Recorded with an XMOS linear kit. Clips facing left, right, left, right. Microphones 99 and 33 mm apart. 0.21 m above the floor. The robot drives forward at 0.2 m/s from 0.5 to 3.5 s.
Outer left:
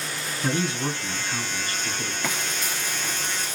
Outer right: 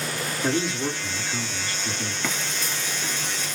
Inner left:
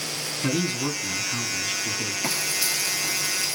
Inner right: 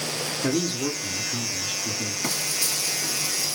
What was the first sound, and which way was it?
A man speaking, 35° left (ahead or behind).